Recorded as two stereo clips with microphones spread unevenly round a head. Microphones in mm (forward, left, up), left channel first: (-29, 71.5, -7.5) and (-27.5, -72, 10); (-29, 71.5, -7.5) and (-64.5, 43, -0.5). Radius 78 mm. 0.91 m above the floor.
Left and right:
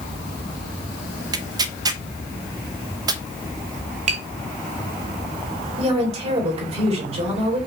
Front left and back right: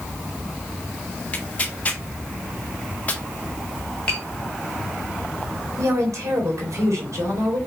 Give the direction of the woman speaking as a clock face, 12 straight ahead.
5 o'clock.